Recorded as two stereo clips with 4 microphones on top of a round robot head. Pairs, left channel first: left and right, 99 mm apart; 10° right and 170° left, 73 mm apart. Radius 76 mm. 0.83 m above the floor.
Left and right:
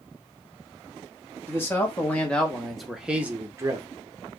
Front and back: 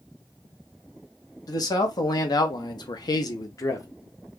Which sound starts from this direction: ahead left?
A man speaking, at 1.5 s.